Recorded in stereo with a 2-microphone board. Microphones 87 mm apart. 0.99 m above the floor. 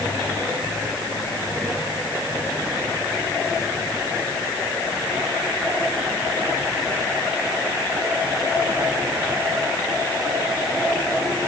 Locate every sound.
Only background noise.